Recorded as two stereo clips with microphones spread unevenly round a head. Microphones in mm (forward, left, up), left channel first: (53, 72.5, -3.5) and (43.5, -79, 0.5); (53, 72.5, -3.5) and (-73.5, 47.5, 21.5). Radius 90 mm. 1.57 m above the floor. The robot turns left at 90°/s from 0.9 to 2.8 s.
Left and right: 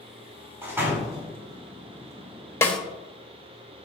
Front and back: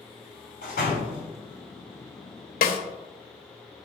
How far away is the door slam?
About 3 m.